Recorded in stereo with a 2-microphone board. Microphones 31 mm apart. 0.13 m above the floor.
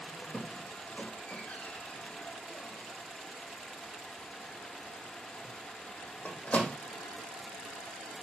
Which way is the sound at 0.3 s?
50° left (ahead or behind).